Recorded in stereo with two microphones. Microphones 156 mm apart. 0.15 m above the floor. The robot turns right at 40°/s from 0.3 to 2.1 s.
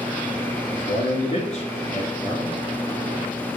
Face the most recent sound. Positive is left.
turn(degrees=135)